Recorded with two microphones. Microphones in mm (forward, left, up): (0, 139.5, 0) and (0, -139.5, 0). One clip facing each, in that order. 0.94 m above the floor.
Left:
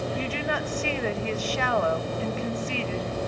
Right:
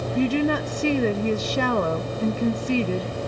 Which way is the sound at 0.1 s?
45° right (ahead or behind).